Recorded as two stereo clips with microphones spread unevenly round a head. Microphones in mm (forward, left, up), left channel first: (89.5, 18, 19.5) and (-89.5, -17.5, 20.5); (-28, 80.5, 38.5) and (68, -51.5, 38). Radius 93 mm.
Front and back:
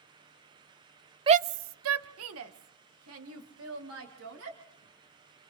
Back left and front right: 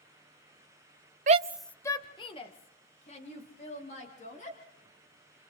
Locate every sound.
1.3 s a shout: 100° right, 0.5 m; by 4.6 s 175° left, 5 m